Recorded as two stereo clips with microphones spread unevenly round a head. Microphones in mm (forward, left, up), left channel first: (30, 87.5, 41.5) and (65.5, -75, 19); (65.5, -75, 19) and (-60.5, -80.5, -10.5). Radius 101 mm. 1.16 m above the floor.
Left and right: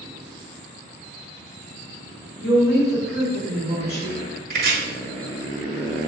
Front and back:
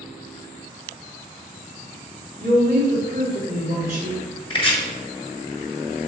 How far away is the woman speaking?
About 3 m.